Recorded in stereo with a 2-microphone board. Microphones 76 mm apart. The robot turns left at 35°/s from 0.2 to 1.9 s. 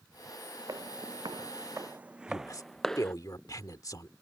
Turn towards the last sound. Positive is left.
turn(degrees=50)  # may be behind; listen again after turning